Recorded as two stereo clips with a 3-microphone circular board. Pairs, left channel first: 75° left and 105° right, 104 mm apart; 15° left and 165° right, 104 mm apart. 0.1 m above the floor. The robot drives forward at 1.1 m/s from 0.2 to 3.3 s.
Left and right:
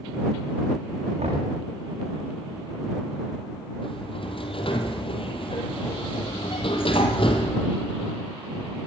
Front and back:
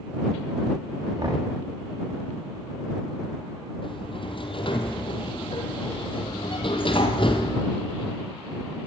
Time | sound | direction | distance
1.2 | knocking | 110° right | 7 m
3.8 | a sliding door | 45° left | 3 m